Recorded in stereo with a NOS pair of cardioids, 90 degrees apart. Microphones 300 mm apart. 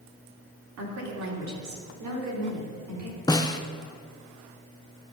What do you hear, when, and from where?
0.8 s a woman speaking: 65° right, 3.5 m; by 3.2 s 80° right, 5 m
3.3 s a snare drum: 15° left, 0.7 m